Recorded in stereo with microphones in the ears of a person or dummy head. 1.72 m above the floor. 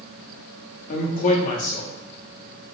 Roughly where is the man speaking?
Left.